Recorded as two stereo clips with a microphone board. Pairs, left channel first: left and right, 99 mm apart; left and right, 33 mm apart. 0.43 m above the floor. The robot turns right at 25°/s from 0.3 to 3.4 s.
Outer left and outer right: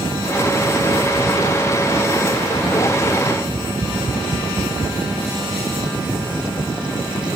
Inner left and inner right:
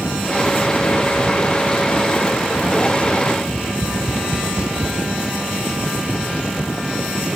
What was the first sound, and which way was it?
Tapping, 35° right (ahead or behind).